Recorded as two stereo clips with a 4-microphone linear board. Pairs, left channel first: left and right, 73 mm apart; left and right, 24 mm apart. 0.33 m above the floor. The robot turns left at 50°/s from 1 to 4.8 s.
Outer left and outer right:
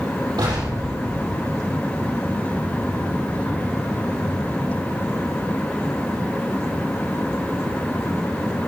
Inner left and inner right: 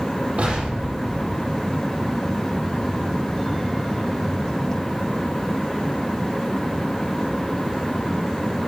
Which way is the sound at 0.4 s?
75° right (ahead or behind).